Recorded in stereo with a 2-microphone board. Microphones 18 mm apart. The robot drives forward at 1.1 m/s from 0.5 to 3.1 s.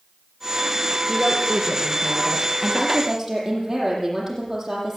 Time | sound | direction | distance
1.1 | a woman speaking | 25° right (ahead or behind) | 7 m